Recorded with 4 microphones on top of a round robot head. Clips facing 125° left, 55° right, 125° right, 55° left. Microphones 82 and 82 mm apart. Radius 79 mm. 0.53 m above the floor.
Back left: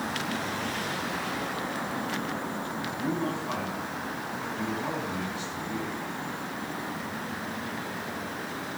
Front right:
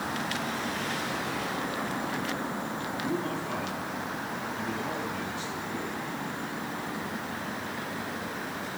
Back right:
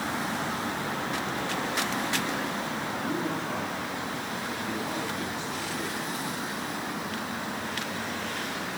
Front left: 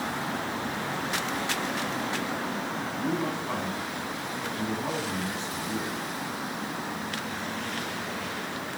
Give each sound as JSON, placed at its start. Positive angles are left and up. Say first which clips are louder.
{"t": 3.0, "sound": "a man speaking", "louder": "back left 2 dB, front left 2 dB", "azimuth_deg": 90, "distance_m": 5.0}